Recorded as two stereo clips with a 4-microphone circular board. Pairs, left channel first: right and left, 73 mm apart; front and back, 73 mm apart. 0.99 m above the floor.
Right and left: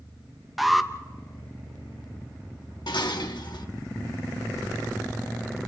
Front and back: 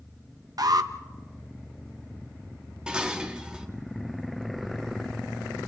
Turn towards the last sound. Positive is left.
turn(degrees=-105)